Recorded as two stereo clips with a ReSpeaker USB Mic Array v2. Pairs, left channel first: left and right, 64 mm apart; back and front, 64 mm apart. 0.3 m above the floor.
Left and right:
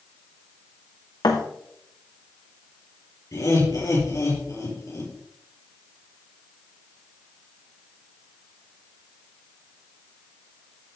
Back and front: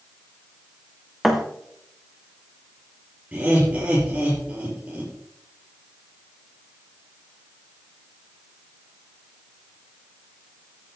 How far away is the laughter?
About 5.5 m.